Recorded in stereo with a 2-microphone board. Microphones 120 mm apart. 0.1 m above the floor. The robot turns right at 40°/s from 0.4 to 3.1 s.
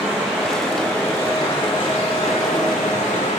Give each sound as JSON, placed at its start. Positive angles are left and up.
{"t": 0.0, "sound": "running water", "azimuth_deg": -10, "distance_m": 2.5}